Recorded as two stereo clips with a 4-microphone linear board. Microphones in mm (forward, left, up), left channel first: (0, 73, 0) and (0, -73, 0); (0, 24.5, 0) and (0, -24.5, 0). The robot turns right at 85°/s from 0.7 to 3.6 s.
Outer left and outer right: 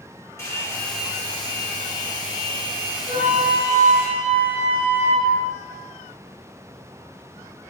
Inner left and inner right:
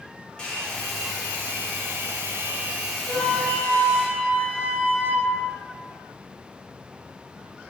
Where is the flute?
85° left, 1.7 m; by 5.3 s 130° left, 1.7 m.